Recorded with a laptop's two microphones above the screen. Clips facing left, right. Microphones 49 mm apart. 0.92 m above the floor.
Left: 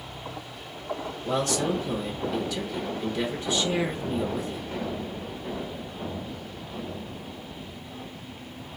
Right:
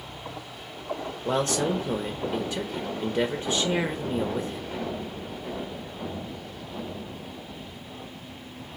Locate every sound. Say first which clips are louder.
1.2 s a man speaking: right 1 dB; 30° right (ahead or behind), 0.8 m